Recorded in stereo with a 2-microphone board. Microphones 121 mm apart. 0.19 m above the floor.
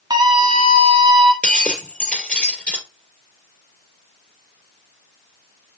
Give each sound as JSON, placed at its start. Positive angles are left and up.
{"t": 0.1, "sound": "a scream", "side_deg": -35, "distance_m": 1.8}
{"t": 1.4, "sound": "breaking glass", "side_deg": 5, "distance_m": 2.0}